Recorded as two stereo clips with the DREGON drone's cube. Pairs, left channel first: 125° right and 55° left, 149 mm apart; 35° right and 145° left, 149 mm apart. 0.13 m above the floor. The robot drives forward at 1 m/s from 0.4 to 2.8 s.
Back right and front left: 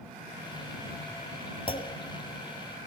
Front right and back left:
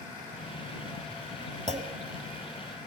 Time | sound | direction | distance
1.7 | a clunk | 175° right | 1.9 m